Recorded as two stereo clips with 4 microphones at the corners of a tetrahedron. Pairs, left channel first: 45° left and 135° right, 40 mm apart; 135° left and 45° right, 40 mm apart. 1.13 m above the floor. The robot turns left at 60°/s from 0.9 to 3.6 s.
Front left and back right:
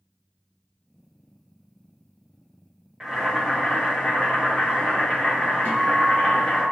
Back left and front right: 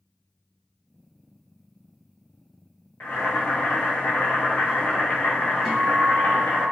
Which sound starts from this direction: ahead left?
A guitar, at 5.7 s.